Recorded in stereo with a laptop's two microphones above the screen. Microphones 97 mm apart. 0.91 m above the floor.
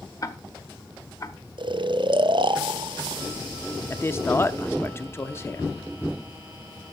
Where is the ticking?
35° left (ahead or behind), 1.1 m.